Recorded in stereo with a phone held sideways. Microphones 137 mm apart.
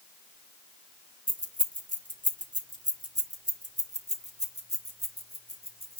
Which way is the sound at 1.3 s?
85° right.